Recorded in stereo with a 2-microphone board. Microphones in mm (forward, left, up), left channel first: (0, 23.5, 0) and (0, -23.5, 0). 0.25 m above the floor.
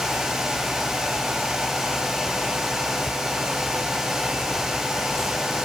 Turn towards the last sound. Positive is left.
No sound to turn to.